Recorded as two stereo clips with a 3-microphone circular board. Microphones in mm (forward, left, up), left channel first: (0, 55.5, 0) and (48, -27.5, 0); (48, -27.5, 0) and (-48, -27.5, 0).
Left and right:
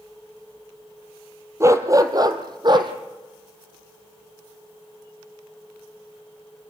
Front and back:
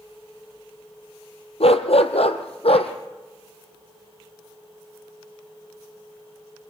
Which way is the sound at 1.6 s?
Straight ahead.